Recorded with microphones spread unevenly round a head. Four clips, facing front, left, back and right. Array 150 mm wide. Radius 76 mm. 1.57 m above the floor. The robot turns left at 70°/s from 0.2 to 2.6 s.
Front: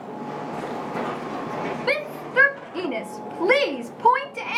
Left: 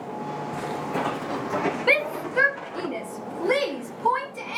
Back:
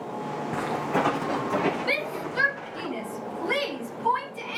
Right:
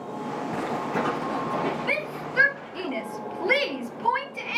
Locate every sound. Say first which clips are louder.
0.5 s footsteps: right 1 dB, back 5 dB; 160° right, 4 m; by 2.9 s 65° left, 5 m
1.9 s a shout: left 6 dB, front 3 dB; 55° left, 1.5 m; by 4.6 s 5° left, 1.5 m